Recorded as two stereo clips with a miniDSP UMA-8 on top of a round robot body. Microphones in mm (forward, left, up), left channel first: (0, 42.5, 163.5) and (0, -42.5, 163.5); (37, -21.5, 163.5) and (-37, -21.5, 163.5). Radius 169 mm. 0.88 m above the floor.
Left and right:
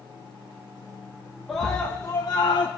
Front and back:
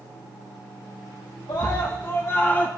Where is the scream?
Straight ahead, 1.5 m; by 2.7 s 70° left, 1.8 m.